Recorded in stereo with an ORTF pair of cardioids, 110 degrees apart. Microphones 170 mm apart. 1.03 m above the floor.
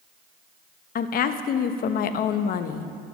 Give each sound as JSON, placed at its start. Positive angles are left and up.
{"t": 0.9, "sound": "a woman speaking", "azimuth_deg": 60, "distance_m": 0.9}